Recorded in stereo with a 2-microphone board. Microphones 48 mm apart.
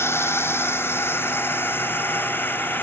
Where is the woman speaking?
No woman speaking in this recording.